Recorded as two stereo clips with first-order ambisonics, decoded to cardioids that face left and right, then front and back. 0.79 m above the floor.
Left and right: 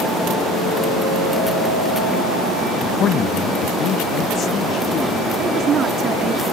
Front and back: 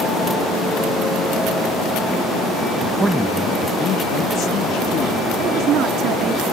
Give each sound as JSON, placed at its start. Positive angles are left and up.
{"t": 2.8, "sound": "a man speaking", "azimuth_deg": 130}
{"t": 5.4, "sound": "a woman speaking", "azimuth_deg": -145}